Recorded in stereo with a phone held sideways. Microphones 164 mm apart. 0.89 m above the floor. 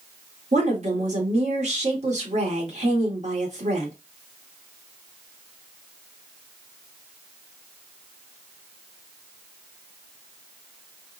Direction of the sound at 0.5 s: 50° right (ahead or behind).